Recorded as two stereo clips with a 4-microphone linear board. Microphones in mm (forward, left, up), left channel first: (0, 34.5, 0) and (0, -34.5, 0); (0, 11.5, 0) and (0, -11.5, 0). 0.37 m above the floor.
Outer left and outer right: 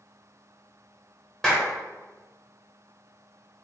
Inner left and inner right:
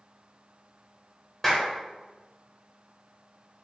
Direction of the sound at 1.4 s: 10° left (ahead or behind).